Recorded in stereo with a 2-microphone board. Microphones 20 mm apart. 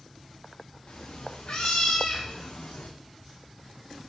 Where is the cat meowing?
85° left, 2 m; by 2.9 s 65° left (ahead or behind), 1.2 m.